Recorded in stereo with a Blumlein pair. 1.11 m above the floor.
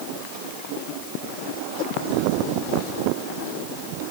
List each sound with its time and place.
Only background noise.